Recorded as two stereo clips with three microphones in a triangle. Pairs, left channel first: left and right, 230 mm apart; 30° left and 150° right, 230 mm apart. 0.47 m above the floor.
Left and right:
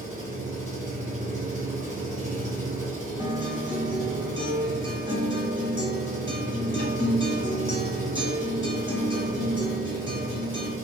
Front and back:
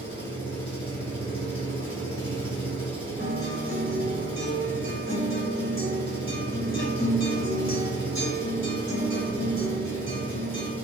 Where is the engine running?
35° right, 2.0 m.